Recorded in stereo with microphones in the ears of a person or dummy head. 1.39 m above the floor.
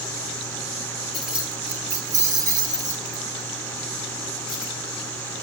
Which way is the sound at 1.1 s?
Centre (ahead or behind).